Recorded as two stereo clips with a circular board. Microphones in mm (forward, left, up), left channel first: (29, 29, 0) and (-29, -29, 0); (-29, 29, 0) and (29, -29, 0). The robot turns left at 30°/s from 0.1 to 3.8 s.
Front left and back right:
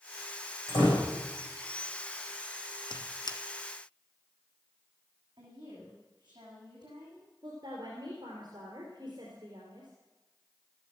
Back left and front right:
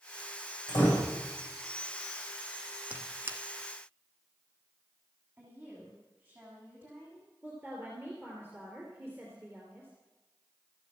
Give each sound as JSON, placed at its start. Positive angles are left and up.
{"t": 0.7, "sound": "a door slam", "azimuth_deg": 95, "distance_m": 8.5}
{"t": 2.9, "sound": "a squeak", "azimuth_deg": 30, "distance_m": 0.9}
{"t": 5.4, "sound": "a woman speaking", "azimuth_deg": -110, "distance_m": 7.5}
{"t": 7.4, "sound": "a woman speaking", "azimuth_deg": -110, "distance_m": 3.5}